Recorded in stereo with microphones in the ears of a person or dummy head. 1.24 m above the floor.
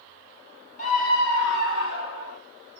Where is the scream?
40° left (ahead or behind), 1.7 m; by 2.4 s 70° left (ahead or behind), 1.6 m.